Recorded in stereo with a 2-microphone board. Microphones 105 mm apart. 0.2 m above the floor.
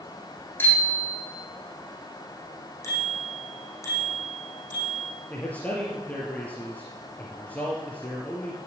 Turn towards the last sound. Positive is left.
turn(degrees=15)  # may be behind; listen again after turning